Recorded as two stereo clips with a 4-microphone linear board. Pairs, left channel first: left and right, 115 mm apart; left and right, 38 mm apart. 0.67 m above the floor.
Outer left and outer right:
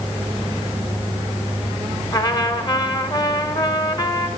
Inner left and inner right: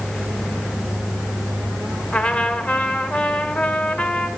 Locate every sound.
2.1 s a trumpet: 35° left (ahead or behind), 1.3 m